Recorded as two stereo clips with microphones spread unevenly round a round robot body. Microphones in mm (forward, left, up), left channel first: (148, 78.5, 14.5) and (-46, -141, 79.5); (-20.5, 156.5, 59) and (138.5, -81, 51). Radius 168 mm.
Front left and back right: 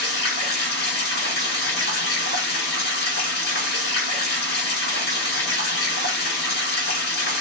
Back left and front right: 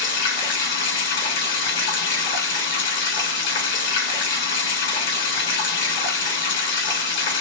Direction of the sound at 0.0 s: 85° left.